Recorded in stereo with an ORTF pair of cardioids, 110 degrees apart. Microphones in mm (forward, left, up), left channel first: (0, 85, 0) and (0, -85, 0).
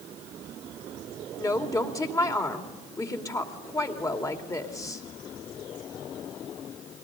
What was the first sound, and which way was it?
A woman speaking, 20° left.